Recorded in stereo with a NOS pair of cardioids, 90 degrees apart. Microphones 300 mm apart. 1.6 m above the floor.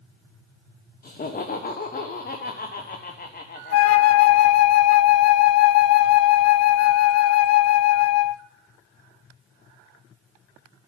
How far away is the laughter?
About 1.2 m.